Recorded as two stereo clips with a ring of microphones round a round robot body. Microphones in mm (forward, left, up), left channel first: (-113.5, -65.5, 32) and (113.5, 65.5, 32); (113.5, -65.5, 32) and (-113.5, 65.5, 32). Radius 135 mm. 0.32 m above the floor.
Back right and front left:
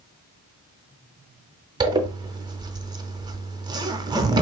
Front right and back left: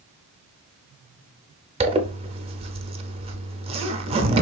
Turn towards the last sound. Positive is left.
turn(degrees=95)